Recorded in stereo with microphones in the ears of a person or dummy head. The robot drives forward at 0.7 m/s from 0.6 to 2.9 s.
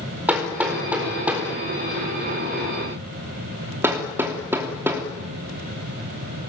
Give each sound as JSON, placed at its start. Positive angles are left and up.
{"t": 0.3, "sound": "hammering", "side_deg": -5, "distance_m": 4.5}